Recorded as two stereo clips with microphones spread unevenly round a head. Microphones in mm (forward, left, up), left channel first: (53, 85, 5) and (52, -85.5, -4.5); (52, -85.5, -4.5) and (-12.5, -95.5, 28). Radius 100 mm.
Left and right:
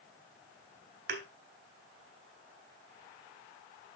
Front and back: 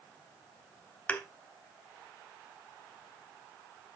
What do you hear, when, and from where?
1.1 s a thud: 70° right, 2 m